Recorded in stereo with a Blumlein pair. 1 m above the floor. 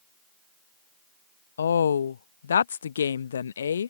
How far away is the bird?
I don't hear a bird.